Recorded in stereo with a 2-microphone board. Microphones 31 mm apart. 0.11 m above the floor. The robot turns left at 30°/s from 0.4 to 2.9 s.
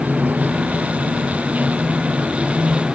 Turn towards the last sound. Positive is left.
turn(degrees=-150)